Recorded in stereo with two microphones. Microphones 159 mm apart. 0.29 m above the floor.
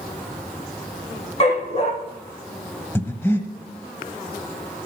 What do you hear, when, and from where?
1.4 s a dog barking: 45° left (ahead or behind), 2.5 m
3.0 s breathing: 15° left (ahead or behind), 1.1 m